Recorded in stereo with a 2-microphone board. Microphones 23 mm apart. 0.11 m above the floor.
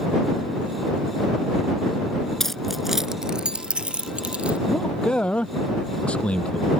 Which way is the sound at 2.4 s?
20° left (ahead or behind).